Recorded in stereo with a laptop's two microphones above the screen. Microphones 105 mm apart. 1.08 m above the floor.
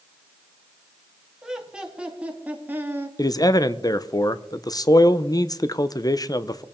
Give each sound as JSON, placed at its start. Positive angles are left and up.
{"t": 1.4, "sound": "laughter", "side_deg": -5, "distance_m": 3.0}
{"t": 3.2, "sound": "a man speaking", "side_deg": 35, "distance_m": 0.6}